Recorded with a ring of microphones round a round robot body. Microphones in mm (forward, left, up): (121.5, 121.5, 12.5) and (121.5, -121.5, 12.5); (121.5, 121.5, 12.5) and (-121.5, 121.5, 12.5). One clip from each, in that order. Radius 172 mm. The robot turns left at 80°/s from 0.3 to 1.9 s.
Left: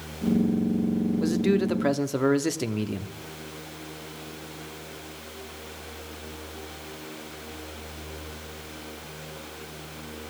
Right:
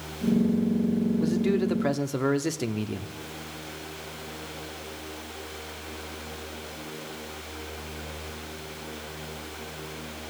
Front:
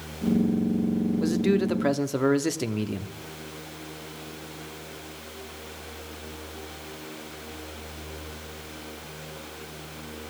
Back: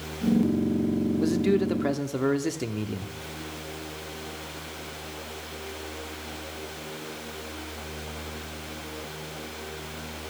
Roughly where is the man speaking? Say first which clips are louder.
Left 3 dB, even; left.